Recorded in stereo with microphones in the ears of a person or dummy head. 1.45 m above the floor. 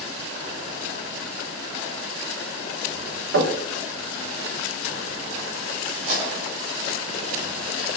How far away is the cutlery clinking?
About 1.9 m.